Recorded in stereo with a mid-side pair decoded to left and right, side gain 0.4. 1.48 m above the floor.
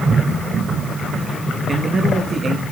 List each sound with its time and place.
1.7 s a man speaking: 50° right, 2.5 m